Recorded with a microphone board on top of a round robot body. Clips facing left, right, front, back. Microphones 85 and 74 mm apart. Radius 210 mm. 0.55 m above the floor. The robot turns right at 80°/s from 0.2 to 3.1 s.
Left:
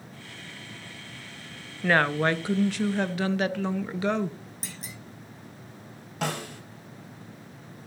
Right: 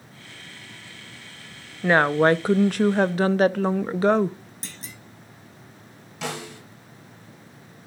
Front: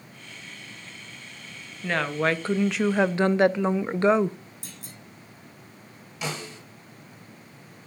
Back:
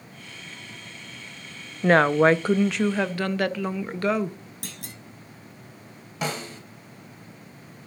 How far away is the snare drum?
About 2.5 m.